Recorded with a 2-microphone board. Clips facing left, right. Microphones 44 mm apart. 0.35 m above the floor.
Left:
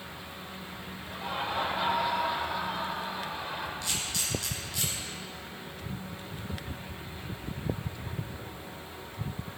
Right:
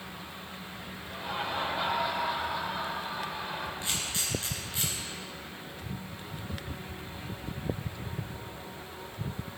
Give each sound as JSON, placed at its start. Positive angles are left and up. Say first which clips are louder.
{"t": 1.1, "sound": "laughter", "louder": "left 1 dB", "side_deg": 0, "distance_m": 1.6}
{"t": 3.8, "sound": "a camera shutter", "louder": "even", "side_deg": -25, "distance_m": 2.0}